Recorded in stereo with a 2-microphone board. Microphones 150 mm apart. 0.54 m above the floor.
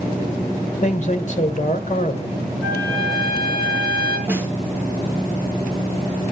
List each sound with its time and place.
0.8 s a man speaking: 55° left (ahead or behind), 1.7 m
2.6 s a trumpet: 30° right (ahead or behind), 6 m
4.3 s a snare drum: 15° right (ahead or behind), 4 m